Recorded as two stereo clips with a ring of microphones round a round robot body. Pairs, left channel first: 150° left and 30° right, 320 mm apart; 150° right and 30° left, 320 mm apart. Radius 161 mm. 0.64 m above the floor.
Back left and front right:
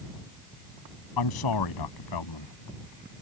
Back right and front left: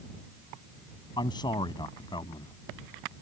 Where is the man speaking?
135° left.